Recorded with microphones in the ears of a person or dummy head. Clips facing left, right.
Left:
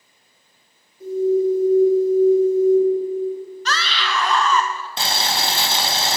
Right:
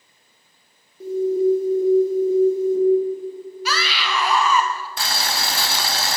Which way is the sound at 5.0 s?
25° left (ahead or behind).